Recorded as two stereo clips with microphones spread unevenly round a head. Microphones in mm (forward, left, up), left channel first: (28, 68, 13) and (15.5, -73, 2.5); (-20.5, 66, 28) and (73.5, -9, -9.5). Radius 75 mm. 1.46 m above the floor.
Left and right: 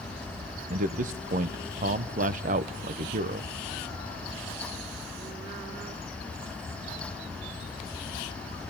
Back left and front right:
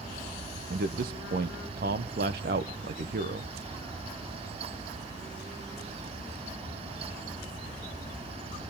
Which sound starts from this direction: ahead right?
A man speaking, at 0.7 s.